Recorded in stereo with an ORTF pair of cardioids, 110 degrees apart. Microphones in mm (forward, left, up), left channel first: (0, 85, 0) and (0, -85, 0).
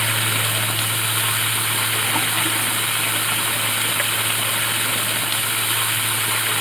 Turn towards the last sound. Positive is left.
turn(degrees=0)